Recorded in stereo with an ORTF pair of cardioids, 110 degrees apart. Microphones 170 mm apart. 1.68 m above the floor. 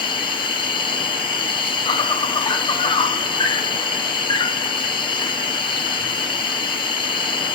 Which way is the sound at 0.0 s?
25° left.